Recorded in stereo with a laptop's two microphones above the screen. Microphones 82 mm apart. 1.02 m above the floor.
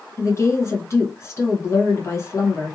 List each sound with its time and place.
0.2 s a woman speaking: 35° left (ahead or behind), 0.9 m